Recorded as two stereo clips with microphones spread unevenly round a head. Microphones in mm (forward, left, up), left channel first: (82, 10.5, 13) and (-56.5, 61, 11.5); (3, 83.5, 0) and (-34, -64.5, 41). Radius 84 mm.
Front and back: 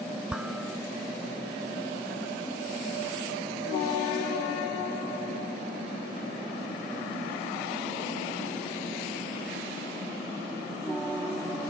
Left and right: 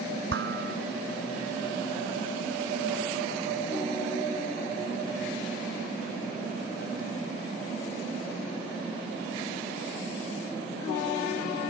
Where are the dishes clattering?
115° right.